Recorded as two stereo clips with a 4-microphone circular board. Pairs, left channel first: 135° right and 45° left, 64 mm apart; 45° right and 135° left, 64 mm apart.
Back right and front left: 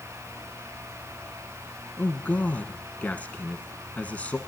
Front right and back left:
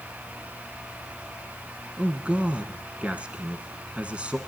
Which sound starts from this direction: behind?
A man speaking, at 2.0 s.